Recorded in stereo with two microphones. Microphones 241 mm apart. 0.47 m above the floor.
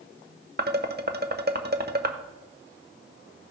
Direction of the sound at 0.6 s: 40° right (ahead or behind).